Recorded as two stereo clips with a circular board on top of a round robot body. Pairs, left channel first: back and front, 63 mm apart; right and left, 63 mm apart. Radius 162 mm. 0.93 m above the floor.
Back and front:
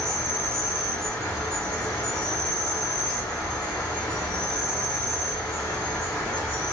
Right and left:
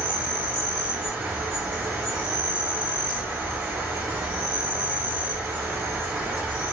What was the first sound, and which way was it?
An insect, 140° left.